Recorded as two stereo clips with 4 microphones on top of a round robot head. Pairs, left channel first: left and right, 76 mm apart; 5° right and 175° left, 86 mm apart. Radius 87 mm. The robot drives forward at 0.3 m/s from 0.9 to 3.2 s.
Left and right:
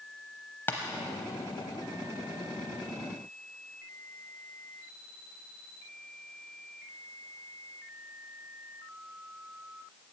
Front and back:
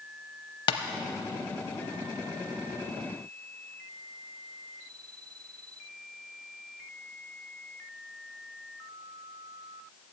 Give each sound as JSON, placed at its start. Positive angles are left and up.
{"t": 0.7, "sound": "tapping", "azimuth_deg": 20, "distance_m": 0.6}